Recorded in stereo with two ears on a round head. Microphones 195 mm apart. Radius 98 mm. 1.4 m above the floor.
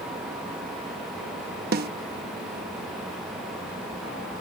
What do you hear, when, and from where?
1.7 s a snare drum: 40° right (ahead or behind)